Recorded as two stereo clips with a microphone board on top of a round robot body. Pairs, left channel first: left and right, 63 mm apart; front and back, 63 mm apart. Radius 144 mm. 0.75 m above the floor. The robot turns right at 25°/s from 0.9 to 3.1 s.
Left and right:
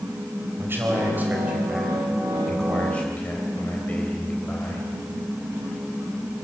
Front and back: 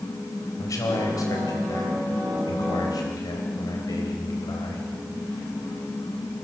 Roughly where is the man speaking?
Ahead right.